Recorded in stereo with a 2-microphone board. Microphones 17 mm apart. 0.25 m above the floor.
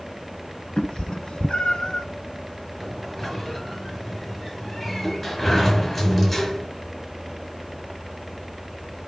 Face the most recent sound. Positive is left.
turn(degrees=20)  # may be behind; listen again after turning